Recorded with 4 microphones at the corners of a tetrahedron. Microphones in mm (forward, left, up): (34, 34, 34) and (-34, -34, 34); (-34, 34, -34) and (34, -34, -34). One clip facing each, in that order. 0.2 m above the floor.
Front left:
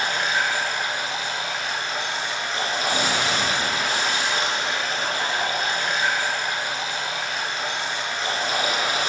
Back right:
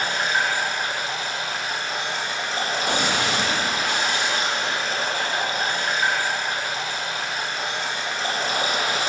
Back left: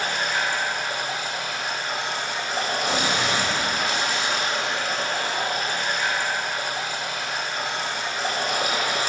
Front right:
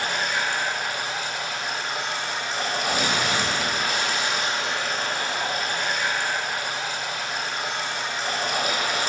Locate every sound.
0.0 s running water: 170° left, 1.6 m
2.9 s a gunshot: 160° right, 1.5 m